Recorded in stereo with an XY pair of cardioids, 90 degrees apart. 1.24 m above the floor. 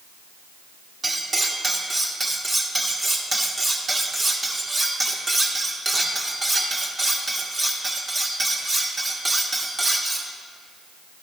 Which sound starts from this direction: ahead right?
Cutlery clinking, at 1.0 s.